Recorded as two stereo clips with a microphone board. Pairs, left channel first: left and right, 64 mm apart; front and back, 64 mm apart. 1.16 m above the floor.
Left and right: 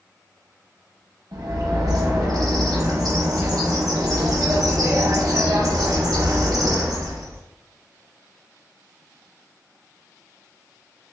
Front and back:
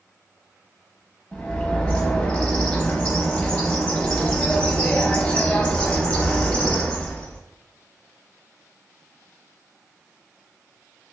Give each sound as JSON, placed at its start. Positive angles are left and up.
{"t": 1.3, "sound": "a bird", "azimuth_deg": -70, "distance_m": 0.9}